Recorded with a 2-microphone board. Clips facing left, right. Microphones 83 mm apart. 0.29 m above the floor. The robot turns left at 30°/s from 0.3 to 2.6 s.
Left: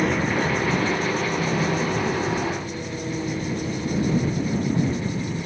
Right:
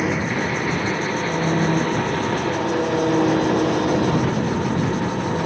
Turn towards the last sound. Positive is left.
turn(degrees=-70)